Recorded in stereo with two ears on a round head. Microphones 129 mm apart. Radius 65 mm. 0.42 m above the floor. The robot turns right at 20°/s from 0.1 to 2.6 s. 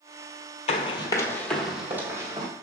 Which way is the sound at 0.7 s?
45° left (ahead or behind).